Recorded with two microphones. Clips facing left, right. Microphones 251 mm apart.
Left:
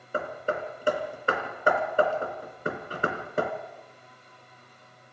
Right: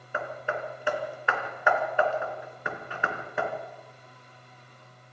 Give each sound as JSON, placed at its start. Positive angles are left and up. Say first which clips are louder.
{"t": 0.1, "sound": "hammering", "louder": "left 3 dB", "side_deg": 40, "distance_m": 2.5}